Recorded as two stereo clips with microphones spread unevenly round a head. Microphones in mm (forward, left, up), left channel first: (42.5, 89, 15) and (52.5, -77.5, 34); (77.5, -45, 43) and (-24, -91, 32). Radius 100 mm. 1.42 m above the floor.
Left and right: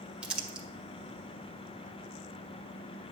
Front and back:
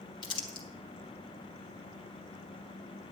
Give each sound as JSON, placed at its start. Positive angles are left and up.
{"t": 0.2, "sound": "crumpling", "azimuth_deg": -10, "distance_m": 1.8}